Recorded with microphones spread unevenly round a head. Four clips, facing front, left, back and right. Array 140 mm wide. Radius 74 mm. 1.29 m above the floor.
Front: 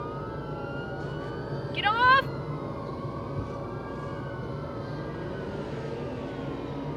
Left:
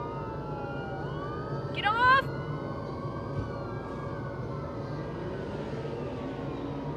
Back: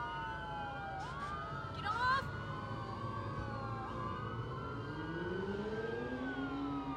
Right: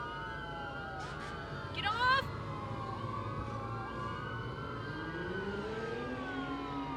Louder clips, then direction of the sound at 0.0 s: Left 6 dB, front 7 dB; 35° left.